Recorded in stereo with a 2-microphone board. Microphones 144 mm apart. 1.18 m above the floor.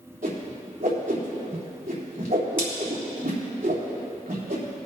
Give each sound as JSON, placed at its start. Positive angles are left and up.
{"t": 0.2, "sound": "a whoosh", "side_deg": -70, "distance_m": 3.0}